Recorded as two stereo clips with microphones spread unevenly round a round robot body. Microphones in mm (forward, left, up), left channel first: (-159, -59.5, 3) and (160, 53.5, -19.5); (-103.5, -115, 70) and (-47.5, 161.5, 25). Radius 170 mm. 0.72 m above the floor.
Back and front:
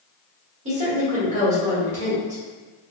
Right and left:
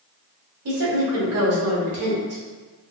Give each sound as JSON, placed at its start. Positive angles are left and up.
{"t": 0.7, "sound": "a woman speaking", "azimuth_deg": 85, "distance_m": 1.9}